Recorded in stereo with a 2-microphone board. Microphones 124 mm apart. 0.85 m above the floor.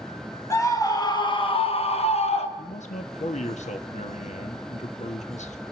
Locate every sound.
0.5 s a scream: 25° left (ahead or behind), 2 m; by 2.5 s 50° left (ahead or behind), 1.5 m
2.6 s a man speaking: 65° left (ahead or behind), 1.3 m